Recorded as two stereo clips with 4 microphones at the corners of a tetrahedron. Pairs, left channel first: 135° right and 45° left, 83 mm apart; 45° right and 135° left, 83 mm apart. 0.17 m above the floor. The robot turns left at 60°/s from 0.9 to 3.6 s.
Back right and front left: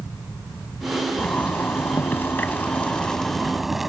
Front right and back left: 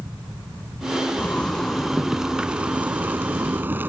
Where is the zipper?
85° right; by 3.9 s 130° left.